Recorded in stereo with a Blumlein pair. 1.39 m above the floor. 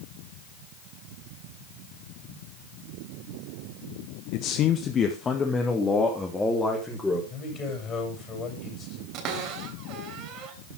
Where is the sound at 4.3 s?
45° left, 1.1 m; by 7.2 s 5° left, 4.5 m.